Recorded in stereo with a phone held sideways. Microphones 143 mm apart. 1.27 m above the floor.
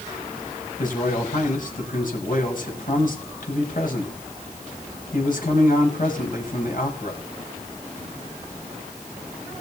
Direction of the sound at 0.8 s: 65° left (ahead or behind).